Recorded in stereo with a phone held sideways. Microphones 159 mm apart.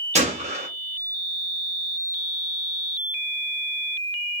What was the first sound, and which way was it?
A gunshot, 45° right (ahead or behind).